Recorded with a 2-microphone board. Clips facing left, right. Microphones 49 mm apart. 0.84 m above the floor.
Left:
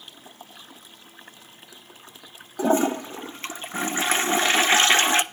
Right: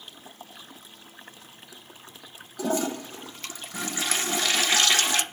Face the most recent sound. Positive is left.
turn(degrees=30)  # may be behind; listen again after turning